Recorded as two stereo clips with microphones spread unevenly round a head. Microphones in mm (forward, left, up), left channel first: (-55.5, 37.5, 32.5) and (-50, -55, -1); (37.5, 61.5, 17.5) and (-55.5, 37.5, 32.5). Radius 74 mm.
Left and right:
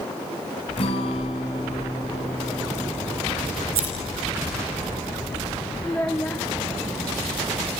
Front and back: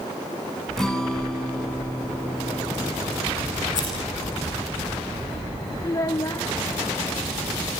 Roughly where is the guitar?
Left.